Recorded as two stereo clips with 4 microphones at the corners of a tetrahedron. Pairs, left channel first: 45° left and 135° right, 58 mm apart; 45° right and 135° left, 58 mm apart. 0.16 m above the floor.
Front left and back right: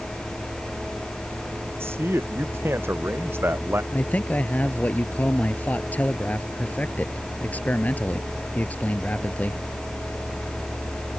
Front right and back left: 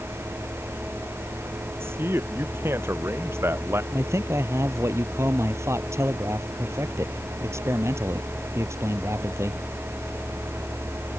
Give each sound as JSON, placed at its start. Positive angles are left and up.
{"t": 1.8, "sound": "a man speaking", "azimuth_deg": 180}
{"t": 3.9, "sound": "a man speaking", "azimuth_deg": 105}